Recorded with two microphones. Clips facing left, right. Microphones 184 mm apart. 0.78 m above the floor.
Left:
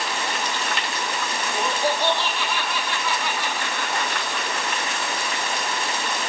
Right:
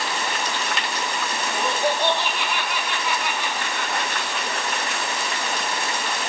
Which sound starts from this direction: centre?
Laughter, at 1.5 s.